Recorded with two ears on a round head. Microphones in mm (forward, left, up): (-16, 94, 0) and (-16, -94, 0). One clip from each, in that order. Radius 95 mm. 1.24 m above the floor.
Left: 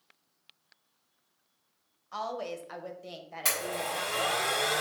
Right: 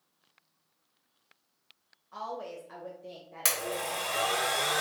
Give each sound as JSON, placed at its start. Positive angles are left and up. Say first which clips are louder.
{"t": 2.1, "sound": "a woman speaking", "louder": "left 3 dB", "side_deg": 55, "distance_m": 0.9}
{"t": 3.5, "sound": "a blender", "louder": "even", "side_deg": -45, "distance_m": 2.0}